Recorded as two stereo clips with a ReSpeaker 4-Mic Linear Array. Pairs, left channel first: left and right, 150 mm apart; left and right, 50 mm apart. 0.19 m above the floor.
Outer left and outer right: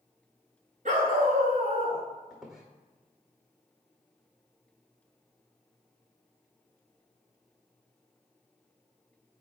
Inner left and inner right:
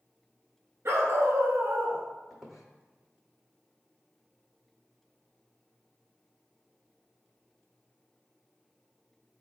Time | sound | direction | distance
0.8 | a dog barking | 65° right (ahead or behind) | 0.9 m
2.3 | a squeak | 5° right (ahead or behind) | 0.7 m